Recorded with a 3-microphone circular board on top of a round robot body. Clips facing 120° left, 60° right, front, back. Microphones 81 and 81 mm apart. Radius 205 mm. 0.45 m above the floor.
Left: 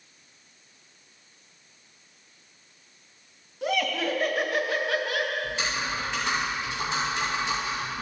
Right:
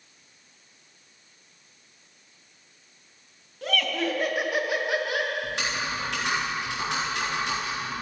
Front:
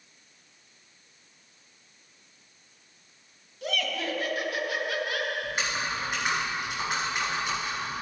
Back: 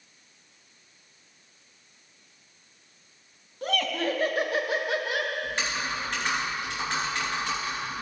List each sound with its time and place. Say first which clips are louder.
3.6 s laughter: left 1 dB, back 4 dB; 175° right, 1.6 m; by 5.3 s 120° right, 1.9 m
5.4 s typing on a keyboard: even, even; 80° right, 3 m